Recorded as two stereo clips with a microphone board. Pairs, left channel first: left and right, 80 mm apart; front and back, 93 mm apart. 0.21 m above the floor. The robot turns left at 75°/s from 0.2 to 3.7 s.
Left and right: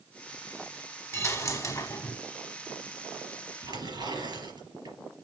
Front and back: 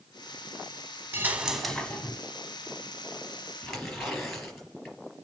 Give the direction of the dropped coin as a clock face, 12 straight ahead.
8 o'clock.